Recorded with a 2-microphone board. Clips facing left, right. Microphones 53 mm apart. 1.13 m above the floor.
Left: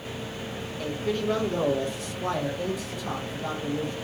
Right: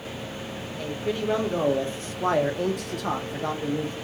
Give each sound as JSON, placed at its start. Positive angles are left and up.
{"t": 0.8, "sound": "a man speaking", "side_deg": -10, "distance_m": 1.3}